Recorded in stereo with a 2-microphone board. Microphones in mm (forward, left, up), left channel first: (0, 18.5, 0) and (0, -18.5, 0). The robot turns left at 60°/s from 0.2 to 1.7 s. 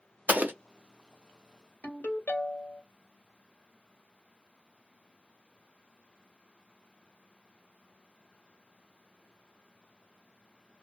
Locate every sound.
0.3 s an explosion: 40° right (ahead or behind), 0.6 m; by 0.5 s 55° right (ahead or behind), 0.6 m
1.8 s a ringtone: 50° left (ahead or behind), 1.6 m